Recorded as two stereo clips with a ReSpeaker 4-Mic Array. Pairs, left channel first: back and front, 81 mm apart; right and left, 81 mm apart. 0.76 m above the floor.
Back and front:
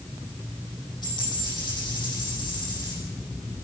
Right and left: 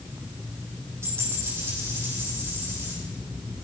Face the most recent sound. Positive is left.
turn(degrees=145)